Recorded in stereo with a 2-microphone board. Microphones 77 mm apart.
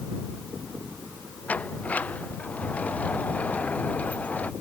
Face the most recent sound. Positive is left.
turn(degrees=20)  # may be behind; listen again after turning